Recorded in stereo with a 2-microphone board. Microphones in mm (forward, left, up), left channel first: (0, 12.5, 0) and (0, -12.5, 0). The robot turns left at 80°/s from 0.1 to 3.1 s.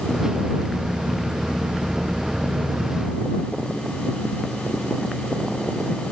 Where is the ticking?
I don't hear ticking.